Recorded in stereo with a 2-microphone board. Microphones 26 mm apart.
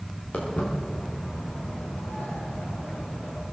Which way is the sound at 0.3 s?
50° left (ahead or behind).